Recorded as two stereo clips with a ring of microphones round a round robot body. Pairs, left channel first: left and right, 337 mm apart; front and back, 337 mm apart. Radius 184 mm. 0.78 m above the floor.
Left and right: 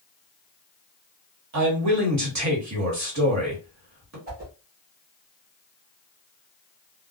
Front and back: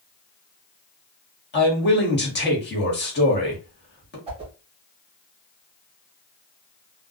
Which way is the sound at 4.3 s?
125° right.